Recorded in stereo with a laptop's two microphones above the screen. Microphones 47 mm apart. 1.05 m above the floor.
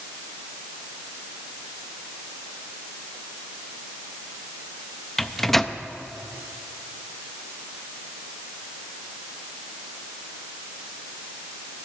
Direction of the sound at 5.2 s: 5° left (ahead or behind).